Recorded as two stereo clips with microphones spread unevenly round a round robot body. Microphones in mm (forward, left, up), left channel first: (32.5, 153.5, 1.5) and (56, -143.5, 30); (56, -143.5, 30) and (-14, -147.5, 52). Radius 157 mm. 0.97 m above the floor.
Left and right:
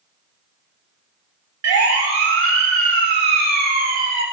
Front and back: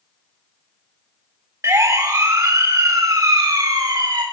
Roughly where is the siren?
Behind right.